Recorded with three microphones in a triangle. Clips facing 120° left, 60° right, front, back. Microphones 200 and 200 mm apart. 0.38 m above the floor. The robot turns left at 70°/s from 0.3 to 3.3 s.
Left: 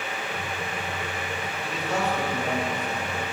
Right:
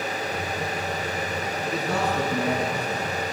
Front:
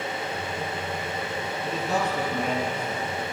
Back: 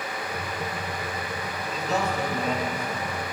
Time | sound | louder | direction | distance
1.6 | a man speaking | right 1 dB, even | 25° right | 3.5 m